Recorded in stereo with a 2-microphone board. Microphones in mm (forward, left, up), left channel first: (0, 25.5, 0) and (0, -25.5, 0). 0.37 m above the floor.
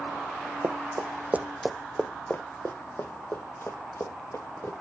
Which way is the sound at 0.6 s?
75° right (ahead or behind).